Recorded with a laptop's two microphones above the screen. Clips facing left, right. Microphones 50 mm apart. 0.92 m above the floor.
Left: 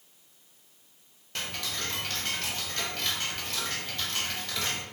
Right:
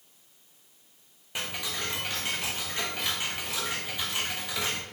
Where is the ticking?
15° right (ahead or behind), 0.7 m.